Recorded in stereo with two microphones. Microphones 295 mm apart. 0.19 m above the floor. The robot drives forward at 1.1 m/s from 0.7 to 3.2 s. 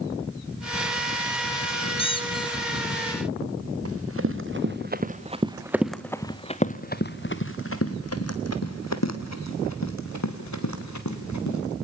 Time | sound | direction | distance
2.0 | a squeak | 20° left (ahead or behind) | 2.0 m
3.9 | running footsteps | 55° right (ahead or behind) | 1.9 m